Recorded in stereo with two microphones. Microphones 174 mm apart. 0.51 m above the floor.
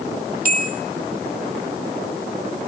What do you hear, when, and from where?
0.5 s a bell: 55° right (ahead or behind), 0.9 m